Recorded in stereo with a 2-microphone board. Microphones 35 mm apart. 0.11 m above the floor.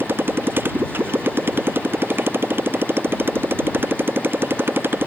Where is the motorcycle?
85° right.